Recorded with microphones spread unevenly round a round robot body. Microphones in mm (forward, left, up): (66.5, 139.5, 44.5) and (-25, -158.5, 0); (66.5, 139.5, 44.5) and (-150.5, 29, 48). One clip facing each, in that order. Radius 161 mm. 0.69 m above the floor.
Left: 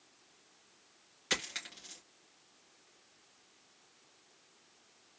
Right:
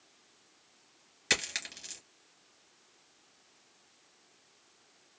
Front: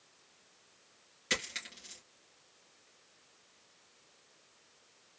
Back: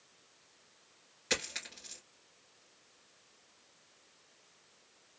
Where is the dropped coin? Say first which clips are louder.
Right 3 dB, back 3 dB; 65° right, 3 m.